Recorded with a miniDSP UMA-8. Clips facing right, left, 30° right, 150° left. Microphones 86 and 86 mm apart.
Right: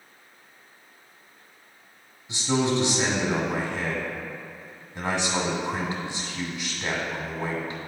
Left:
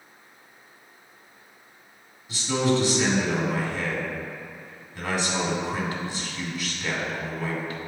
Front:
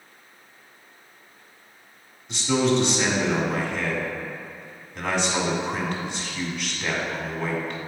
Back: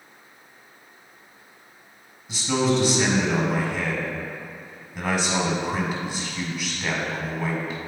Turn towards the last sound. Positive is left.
turn(degrees=-130)